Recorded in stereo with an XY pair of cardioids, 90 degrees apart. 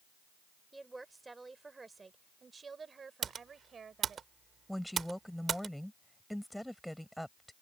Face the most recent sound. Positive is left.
turn(degrees=5)